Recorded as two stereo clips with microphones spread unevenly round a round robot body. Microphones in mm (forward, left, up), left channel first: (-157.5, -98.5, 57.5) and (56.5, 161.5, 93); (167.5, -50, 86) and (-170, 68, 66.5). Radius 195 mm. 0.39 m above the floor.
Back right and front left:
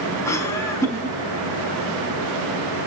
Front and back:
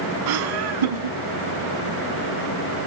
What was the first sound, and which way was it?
Laughter, 150° left.